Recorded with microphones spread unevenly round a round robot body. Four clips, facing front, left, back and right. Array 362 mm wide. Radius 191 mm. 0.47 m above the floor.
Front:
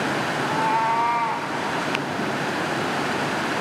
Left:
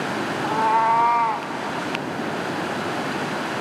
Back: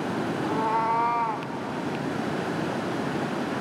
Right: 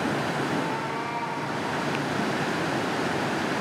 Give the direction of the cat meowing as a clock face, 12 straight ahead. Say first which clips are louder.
Left 9 dB, front 3 dB; 10 o'clock.